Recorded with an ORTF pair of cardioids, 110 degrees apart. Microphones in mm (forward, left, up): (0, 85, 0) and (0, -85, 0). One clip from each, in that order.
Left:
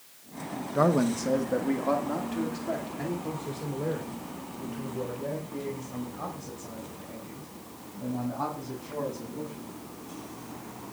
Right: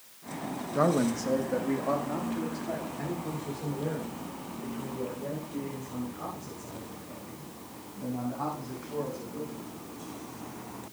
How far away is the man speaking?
About 0.9 m.